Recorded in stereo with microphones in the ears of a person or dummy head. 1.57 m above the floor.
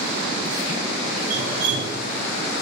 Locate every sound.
1.2 s dripping: 55° right (ahead or behind), 5.5 m